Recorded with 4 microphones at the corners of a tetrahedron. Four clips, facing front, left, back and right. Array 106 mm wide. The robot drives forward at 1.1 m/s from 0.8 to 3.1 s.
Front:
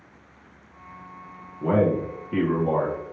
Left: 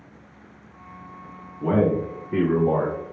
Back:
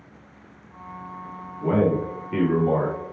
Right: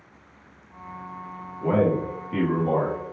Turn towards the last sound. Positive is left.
turn(degrees=135)